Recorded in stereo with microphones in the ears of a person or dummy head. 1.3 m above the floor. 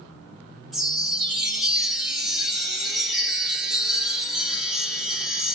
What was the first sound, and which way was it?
A chime, centre (ahead or behind).